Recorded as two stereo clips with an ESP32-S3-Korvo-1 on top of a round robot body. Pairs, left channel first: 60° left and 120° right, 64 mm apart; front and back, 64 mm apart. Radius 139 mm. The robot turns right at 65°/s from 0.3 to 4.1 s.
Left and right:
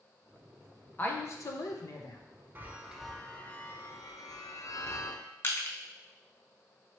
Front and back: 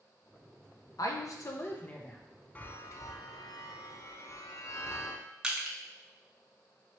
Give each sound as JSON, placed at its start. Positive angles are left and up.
{"t": 1.0, "sound": "a woman speaking", "azimuth_deg": 0, "distance_m": 0.8}
{"t": 2.5, "sound": "a chime", "azimuth_deg": -65, "distance_m": 0.6}
{"t": 5.4, "sound": "crushing", "azimuth_deg": 105, "distance_m": 0.9}